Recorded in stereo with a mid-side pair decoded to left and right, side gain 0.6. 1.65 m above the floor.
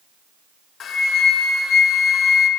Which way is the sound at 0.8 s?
45° left.